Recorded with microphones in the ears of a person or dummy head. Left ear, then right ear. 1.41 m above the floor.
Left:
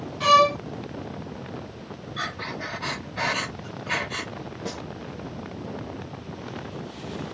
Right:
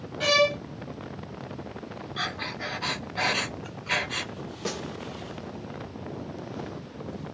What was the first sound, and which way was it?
A violin, 15° right (ahead or behind).